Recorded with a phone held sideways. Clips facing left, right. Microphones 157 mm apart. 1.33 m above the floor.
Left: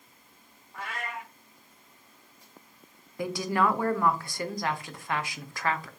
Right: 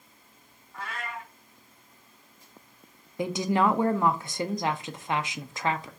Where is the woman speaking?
20° right (ahead or behind), 0.5 m.